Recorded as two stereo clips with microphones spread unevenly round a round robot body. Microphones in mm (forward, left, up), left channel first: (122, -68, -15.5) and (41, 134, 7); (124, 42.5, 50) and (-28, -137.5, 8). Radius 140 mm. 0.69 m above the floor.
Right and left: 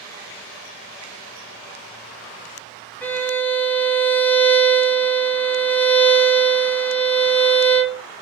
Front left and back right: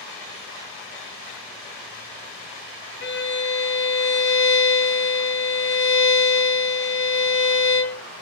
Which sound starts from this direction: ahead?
A violin, at 3.0 s.